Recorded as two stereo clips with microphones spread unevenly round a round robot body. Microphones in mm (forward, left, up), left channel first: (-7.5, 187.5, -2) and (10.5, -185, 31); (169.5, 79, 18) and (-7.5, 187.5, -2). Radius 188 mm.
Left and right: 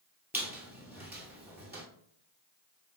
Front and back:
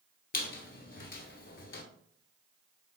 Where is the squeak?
5° right, 1.1 m.